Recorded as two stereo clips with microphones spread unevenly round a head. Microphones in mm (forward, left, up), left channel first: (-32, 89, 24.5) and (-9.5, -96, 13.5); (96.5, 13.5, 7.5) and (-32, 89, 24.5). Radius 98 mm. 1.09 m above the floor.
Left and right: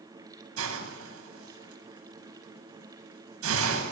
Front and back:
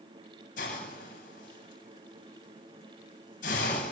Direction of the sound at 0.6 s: 80° right.